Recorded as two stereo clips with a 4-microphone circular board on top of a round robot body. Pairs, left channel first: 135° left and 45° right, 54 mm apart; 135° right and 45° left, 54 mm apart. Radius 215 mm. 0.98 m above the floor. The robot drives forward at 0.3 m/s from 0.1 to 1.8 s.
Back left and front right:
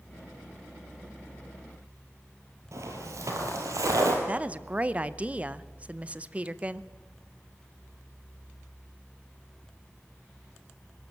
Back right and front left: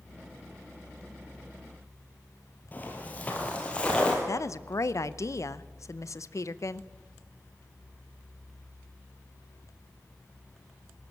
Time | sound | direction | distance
2.7 | footsteps | 75° right | 2 m
4.3 | a woman speaking | 110° right | 0.9 m